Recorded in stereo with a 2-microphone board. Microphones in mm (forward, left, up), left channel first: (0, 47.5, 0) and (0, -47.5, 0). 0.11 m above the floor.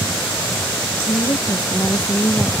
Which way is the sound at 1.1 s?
40° left (ahead or behind).